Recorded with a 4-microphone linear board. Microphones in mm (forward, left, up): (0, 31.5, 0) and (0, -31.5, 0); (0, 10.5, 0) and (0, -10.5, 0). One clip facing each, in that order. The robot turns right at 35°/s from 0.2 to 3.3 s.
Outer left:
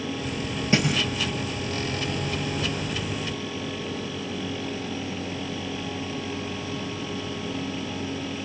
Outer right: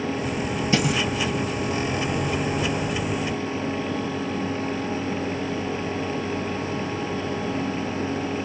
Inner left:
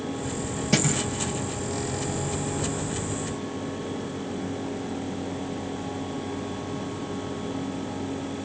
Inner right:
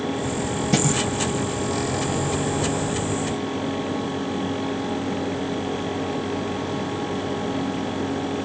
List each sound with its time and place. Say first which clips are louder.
0.7 s a thud: even, inner right 2 dB; 30° left (ahead or behind), 7.5 m; by 0.9 s 35° left (ahead or behind), 7.5 m